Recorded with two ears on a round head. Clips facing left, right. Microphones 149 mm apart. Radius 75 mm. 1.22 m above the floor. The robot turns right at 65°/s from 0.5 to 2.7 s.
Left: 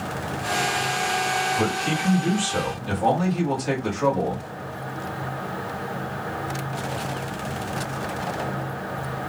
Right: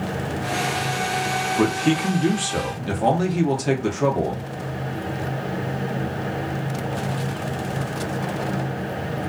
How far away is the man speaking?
About 1.0 m.